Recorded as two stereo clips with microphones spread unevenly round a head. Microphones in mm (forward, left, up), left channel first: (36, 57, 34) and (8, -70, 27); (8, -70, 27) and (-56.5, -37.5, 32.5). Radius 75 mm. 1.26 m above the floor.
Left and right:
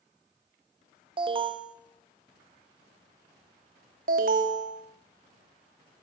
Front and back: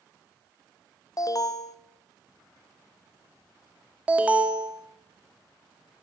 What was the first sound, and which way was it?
An alarm, 55° right.